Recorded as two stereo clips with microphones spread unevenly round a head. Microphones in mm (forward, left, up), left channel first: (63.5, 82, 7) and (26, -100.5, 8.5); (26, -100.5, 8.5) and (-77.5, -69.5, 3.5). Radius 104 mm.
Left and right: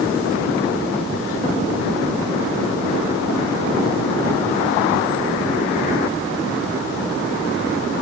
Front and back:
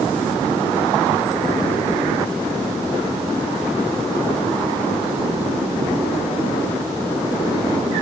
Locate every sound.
Only background noise.